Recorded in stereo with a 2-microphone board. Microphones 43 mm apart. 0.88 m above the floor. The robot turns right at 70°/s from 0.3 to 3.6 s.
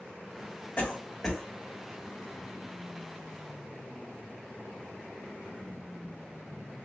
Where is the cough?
35° left (ahead or behind), 1.8 m; by 1.4 s 10° right (ahead or behind), 1.8 m.